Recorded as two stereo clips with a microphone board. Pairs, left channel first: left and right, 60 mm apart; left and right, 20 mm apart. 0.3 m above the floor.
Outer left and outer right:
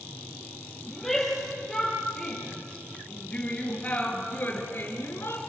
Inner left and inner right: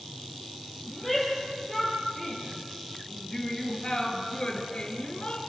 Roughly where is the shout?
Centre.